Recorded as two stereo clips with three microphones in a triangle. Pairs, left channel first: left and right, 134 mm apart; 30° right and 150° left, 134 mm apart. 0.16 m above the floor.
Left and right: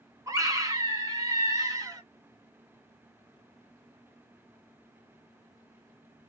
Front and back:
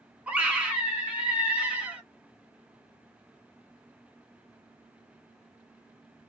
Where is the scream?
135° right, 1.3 m.